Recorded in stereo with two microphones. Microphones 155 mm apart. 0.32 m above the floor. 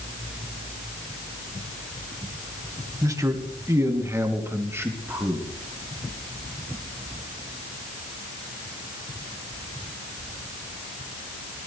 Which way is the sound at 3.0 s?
20° right (ahead or behind).